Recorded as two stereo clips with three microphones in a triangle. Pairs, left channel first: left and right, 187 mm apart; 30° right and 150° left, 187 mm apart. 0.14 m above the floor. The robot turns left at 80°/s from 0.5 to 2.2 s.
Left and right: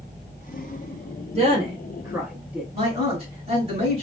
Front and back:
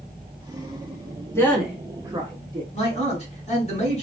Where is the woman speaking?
95° right, 1.2 m; by 2.6 s 165° right, 1.2 m.